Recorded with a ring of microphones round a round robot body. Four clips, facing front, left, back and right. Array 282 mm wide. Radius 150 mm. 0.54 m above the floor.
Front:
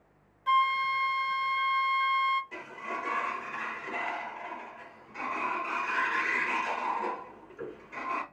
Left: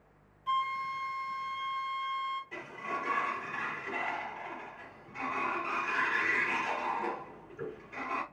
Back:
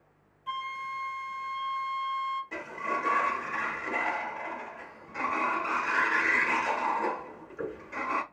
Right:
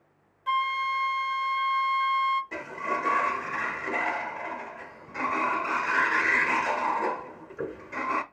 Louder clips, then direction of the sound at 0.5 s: Right 5 dB, front 10 dB; 45° right.